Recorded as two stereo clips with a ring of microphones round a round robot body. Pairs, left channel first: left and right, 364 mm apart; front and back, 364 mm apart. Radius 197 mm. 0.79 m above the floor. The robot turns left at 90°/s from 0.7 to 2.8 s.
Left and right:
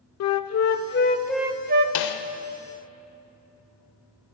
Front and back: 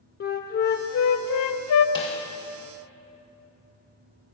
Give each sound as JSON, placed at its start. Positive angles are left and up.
{"t": 0.2, "sound": "a flute", "azimuth_deg": 60, "distance_m": 0.5}
{"t": 1.9, "sound": "a snare drum", "azimuth_deg": 80, "distance_m": 0.8}